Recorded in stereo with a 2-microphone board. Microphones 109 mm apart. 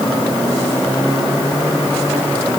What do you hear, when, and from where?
Only background noise.